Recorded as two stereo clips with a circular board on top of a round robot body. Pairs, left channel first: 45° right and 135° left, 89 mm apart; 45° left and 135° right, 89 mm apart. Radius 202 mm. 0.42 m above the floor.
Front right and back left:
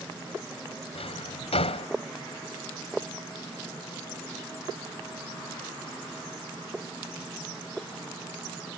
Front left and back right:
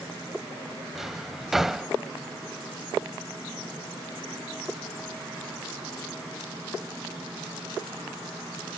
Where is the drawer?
50° right.